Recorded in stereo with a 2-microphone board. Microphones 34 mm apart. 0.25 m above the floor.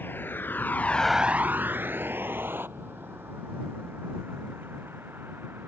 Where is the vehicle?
80° left; by 5.7 s 85° right.